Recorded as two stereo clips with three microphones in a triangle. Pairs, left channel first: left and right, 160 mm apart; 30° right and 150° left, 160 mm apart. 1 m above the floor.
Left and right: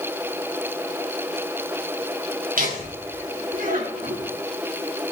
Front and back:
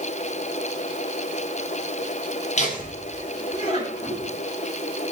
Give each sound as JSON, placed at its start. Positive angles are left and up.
{"t": 2.6, "sound": "laughter", "azimuth_deg": -70, "distance_m": 7.5}